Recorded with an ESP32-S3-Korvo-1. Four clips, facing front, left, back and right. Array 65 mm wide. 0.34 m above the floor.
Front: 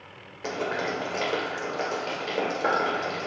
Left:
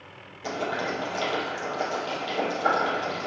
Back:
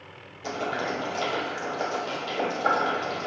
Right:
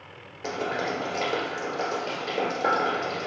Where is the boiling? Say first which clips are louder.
Even, even; 25° right, 1.7 m.